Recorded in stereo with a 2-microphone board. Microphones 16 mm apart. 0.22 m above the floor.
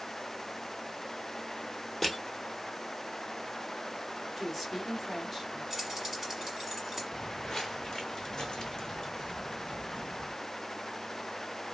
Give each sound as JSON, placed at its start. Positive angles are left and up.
{"t": 2.0, "sound": "crushing", "side_deg": 20, "distance_m": 1.3}
{"t": 4.4, "sound": "a woman speaking", "side_deg": 10, "distance_m": 1.3}
{"t": 5.7, "sound": "keys jangling", "side_deg": -10, "distance_m": 1.4}
{"t": 7.1, "sound": "footsteps", "side_deg": 30, "distance_m": 0.9}